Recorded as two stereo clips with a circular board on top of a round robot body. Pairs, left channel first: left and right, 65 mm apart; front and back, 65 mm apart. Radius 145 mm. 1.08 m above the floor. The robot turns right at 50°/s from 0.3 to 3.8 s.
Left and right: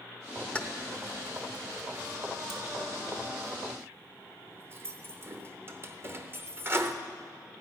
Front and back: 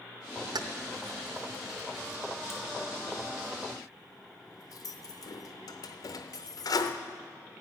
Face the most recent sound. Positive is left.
turn(degrees=-35)